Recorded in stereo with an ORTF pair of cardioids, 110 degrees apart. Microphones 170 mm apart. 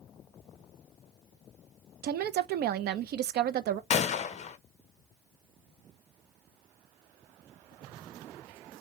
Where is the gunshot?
40° left, 0.7 m.